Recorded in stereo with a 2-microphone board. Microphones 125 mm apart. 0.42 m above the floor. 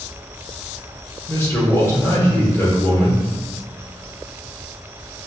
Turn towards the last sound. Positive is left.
turn(degrees=20)  # may be behind; listen again after turning